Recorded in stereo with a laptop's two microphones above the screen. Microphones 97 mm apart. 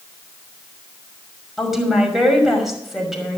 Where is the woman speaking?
Centre (ahead or behind), 5.5 m.